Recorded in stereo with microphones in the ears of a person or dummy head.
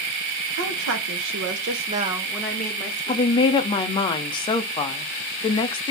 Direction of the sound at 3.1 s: 30° left (ahead or behind).